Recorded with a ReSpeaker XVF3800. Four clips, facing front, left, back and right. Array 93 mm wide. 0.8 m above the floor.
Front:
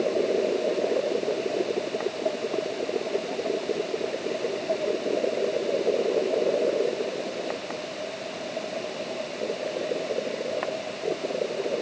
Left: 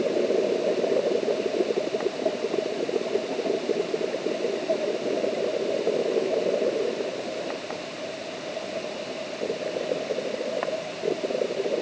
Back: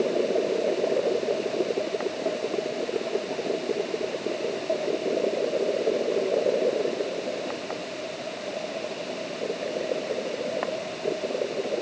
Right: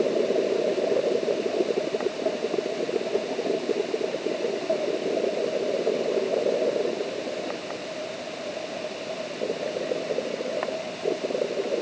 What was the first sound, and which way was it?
Only background noise.